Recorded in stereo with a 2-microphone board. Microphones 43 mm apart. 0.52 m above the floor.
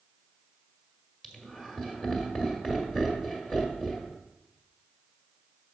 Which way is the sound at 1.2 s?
20° left (ahead or behind).